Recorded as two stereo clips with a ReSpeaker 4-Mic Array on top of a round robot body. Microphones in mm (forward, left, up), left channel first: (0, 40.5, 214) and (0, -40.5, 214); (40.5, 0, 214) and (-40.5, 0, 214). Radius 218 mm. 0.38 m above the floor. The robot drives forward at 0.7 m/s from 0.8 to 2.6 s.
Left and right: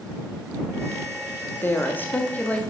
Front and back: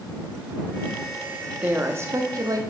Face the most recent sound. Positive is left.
turn(degrees=155)